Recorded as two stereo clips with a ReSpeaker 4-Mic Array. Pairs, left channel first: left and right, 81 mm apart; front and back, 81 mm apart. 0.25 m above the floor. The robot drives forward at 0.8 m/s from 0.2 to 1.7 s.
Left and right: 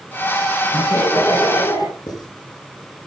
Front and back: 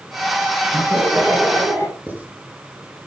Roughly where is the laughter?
Left.